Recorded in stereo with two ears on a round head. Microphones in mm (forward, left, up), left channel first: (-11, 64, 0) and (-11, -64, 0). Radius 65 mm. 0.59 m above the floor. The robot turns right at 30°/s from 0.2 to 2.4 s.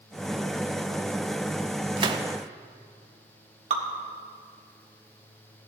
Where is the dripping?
45° right (ahead or behind), 1.6 m.